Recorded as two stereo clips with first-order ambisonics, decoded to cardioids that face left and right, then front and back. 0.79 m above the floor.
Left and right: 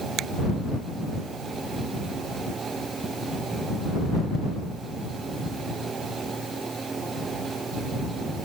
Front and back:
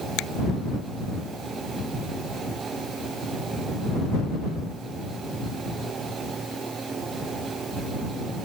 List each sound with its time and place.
0.2 s a finger snap: 35° right